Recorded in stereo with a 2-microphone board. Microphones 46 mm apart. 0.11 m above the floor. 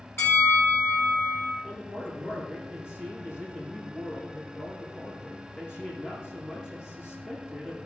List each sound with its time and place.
0.2 s a bell: 65° left (ahead or behind), 3.5 m
1.6 s a man speaking: 60° left (ahead or behind), 6 m